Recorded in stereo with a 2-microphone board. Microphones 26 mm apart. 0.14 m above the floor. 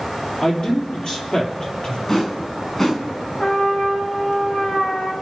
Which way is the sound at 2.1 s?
20° left (ahead or behind).